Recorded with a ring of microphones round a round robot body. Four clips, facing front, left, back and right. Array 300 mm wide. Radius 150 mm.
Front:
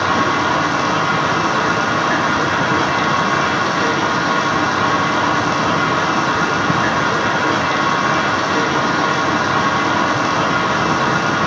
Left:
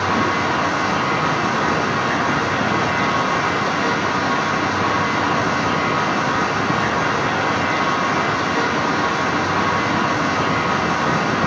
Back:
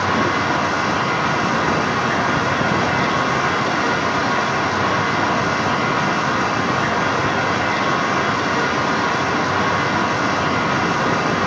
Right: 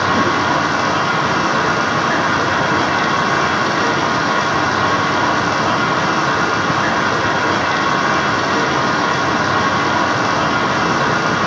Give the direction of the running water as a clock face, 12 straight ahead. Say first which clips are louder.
Right 3 dB, front 2 dB; 2 o'clock.